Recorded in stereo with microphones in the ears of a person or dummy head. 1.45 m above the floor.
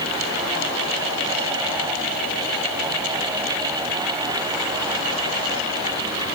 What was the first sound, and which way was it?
Only background noise.